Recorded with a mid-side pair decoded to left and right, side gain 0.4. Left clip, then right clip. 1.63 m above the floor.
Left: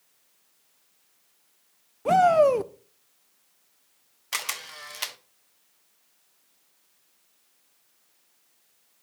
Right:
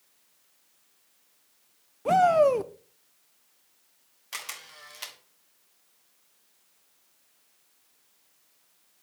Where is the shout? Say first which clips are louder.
Left 2 dB; 15° left, 1.0 m.